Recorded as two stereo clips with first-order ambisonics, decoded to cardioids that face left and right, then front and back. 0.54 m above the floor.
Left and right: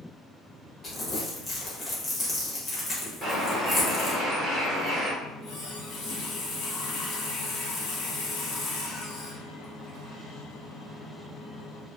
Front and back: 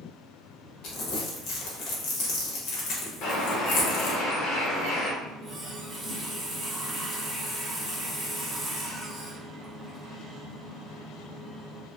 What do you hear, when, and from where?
0.8 s crumpling: 20° left, 1.0 m
3.2 s a bird: 20° right, 1.3 m
5.2 s a running tap: 100° left, 1.1 m